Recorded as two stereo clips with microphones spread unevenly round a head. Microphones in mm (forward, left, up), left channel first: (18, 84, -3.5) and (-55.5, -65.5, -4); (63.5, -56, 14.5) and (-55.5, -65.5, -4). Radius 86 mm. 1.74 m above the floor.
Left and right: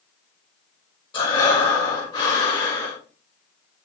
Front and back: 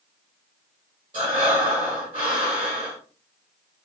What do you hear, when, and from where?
1.1 s breathing: 125° left, 1.9 m